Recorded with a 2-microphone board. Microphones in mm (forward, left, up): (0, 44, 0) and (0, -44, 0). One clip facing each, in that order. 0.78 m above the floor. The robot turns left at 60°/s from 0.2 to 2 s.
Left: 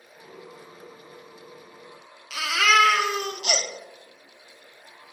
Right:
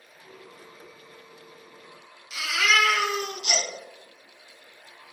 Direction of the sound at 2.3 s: 75° left (ahead or behind).